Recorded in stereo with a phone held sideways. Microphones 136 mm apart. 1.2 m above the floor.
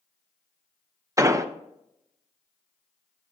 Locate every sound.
1.2 s an explosion: 25° right (ahead or behind), 0.5 m